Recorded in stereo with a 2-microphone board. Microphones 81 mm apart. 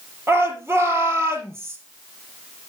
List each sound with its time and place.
0.3 s a shout: 30° right (ahead or behind), 3.5 m